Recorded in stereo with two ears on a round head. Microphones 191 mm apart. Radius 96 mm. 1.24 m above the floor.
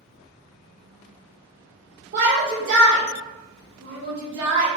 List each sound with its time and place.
2.1 s a shout: 50° right (ahead or behind), 0.9 m; by 4.7 s 70° right (ahead or behind), 2 m